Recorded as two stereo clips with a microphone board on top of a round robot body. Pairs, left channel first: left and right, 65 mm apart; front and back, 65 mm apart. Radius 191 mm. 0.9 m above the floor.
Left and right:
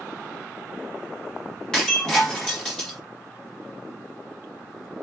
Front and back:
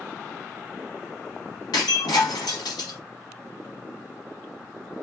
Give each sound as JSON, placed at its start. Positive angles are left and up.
{"t": 1.7, "sound": "breaking glass", "azimuth_deg": 15, "distance_m": 1.0}